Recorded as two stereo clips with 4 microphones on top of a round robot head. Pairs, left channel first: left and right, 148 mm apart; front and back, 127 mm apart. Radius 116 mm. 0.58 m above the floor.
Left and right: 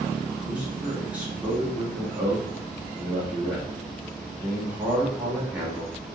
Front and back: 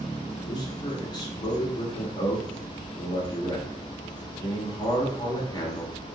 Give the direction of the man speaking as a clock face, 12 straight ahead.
1 o'clock.